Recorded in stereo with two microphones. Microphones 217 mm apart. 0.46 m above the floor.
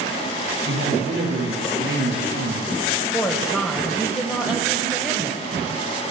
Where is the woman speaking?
15° left (ahead or behind), 2.5 m.